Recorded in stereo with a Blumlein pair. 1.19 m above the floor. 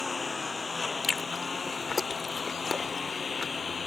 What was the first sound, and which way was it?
A lawn mower, 10° left.